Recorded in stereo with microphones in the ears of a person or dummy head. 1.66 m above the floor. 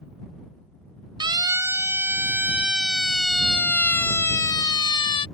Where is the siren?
20° right (ahead or behind); by 5.3 s 25° left (ahead or behind).